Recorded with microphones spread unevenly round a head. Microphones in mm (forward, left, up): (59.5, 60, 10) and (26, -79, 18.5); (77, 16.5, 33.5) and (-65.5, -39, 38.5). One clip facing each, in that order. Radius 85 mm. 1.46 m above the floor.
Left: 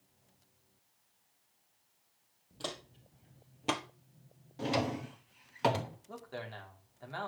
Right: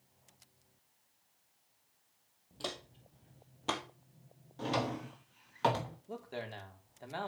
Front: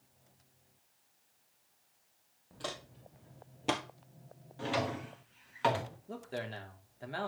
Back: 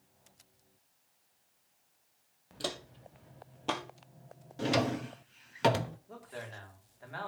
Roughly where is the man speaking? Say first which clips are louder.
Right 5 dB, front 5 dB; ahead right.